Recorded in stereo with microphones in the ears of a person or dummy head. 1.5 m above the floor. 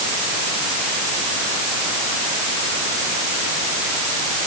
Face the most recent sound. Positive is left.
No sound to turn to.